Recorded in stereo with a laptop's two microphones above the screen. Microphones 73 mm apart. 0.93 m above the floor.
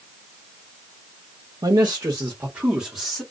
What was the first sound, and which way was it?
A man speaking, 60° right (ahead or behind).